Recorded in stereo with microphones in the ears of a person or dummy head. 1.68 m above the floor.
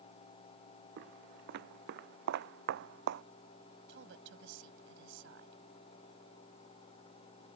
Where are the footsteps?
60° right (ahead or behind).